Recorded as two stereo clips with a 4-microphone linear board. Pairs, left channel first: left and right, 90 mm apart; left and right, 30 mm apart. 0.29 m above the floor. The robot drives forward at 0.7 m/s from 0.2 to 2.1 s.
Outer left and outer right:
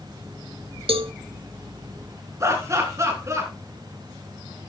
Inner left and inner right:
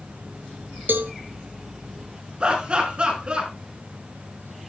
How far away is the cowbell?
About 0.6 m.